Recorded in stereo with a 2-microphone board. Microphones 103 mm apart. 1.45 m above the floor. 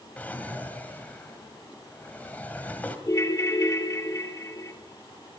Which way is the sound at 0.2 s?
15° left (ahead or behind).